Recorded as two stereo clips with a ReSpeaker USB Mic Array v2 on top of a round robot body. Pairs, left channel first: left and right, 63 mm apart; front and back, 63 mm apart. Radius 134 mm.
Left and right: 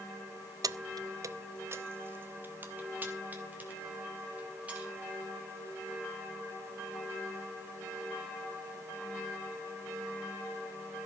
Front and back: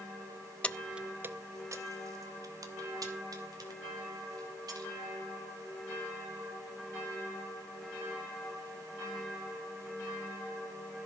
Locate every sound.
0.6 s keys jangling: 70° right, 0.6 m; by 4.9 s 160° right, 4.5 m